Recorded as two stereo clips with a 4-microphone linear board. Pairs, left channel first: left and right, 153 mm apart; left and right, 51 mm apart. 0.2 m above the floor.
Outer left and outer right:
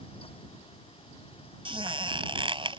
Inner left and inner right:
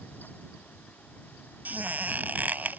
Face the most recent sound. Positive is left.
turn(degrees=-35)  # may be behind; listen again after turning